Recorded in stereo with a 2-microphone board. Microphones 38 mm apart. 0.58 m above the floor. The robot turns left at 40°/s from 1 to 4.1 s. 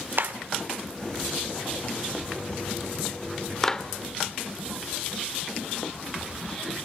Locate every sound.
0.2 s a clap: 65° right (ahead or behind), 1.5 m; by 3.9 s 20° left (ahead or behind), 1.5 m